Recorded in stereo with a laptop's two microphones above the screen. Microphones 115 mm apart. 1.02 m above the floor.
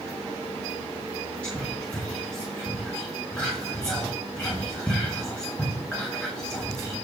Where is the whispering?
10° left (ahead or behind), 1.6 m.